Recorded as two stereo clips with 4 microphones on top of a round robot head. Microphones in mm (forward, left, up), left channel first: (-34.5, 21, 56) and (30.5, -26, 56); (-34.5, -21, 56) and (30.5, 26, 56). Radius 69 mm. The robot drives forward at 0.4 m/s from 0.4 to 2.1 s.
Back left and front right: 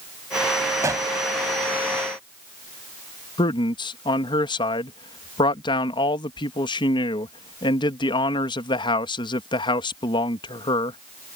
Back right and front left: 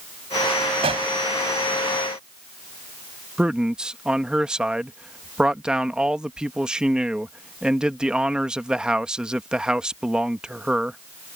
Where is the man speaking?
115° left.